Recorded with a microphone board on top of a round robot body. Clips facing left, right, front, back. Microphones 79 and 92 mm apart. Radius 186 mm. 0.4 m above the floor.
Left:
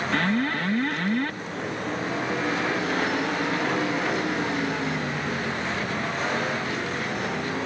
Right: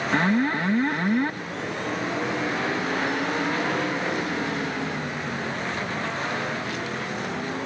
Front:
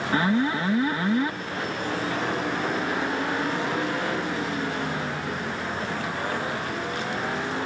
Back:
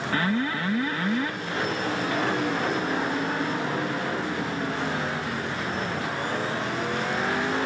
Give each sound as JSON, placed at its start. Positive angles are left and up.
{"t": 0.1, "sound": "an alarm", "azimuth_deg": -45}